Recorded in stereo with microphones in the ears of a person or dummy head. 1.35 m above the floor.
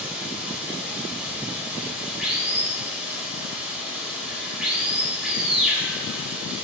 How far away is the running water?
About 1.1 m.